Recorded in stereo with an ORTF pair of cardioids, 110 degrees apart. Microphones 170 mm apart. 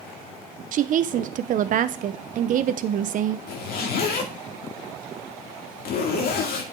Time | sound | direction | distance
0.7 | a woman speaking | 50° right | 0.8 m
3.5 | a zipper | 65° left | 2 m